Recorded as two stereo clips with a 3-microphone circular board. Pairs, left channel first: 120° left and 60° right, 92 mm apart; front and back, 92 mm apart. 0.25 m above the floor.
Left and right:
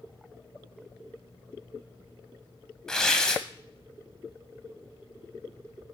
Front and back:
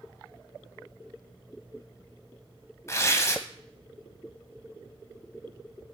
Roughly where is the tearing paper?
Ahead left.